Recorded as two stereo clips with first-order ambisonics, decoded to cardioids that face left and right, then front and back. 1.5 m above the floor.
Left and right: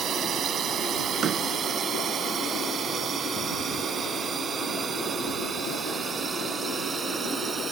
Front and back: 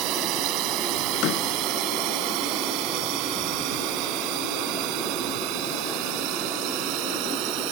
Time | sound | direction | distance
0.0 | a drone | 145° right | ?
1.2 | a door slam | 30° right | ?